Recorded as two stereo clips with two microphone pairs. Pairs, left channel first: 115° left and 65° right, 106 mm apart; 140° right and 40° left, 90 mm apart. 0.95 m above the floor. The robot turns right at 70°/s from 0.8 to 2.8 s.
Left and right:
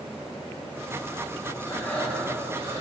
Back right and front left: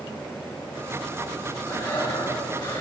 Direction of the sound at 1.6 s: 170° left.